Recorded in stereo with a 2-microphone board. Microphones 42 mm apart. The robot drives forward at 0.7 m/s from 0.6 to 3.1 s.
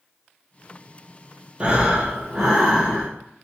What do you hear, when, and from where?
1.6 s breathing: 30° right (ahead or behind), 0.8 m; by 3.1 s 10° right (ahead or behind), 1.7 m